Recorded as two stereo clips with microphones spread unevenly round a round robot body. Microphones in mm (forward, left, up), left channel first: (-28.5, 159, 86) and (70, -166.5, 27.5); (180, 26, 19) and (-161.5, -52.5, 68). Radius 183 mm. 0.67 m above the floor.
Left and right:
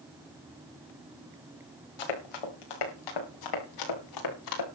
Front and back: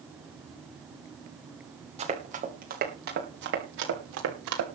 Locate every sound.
2.0 s running footsteps: 120° left, 5 m; by 4.7 s 145° left, 5.5 m